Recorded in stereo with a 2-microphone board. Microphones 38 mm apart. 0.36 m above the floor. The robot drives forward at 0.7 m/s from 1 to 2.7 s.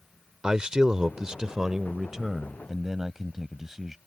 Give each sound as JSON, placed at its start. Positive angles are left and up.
{"t": 0.4, "sound": "a man speaking", "side_deg": -20}